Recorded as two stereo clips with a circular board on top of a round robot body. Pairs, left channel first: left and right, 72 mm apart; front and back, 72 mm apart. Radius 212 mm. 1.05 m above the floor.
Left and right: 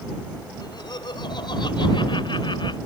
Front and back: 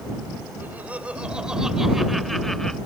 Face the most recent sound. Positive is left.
turn(degrees=85)